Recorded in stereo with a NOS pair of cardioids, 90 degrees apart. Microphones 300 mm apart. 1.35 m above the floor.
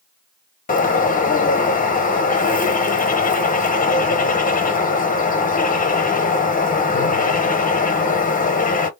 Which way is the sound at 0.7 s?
30° left.